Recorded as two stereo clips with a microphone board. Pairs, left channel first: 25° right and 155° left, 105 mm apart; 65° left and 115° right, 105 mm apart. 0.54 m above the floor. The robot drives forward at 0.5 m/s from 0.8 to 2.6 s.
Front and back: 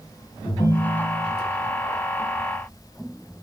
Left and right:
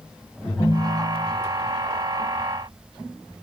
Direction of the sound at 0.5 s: 25° left.